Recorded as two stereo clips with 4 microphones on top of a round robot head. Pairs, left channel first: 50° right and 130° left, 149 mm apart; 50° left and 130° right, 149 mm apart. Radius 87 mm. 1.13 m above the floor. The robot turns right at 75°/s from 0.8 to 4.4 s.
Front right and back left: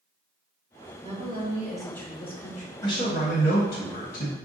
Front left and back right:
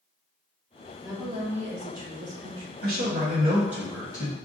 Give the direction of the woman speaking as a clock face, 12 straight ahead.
7 o'clock.